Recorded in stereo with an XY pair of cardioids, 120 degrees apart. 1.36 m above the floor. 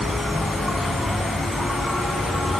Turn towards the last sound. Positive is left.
turn(degrees=5)